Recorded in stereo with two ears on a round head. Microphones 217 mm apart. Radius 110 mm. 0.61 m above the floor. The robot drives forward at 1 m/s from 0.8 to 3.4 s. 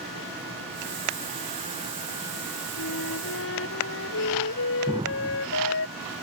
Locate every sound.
2.8 s a flute: 65° left (ahead or behind); by 5.9 s 60° left (ahead or behind)
4.9 s an explosion: 15° right (ahead or behind)